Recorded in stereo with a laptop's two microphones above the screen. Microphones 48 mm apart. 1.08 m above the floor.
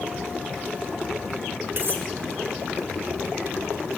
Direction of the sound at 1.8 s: 45° right (ahead or behind).